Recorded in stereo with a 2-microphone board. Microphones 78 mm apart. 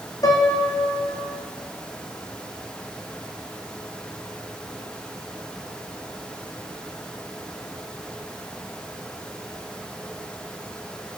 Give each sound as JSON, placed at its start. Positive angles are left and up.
{"t": 0.2, "sound": "a piano", "side_deg": 45, "distance_m": 1.3}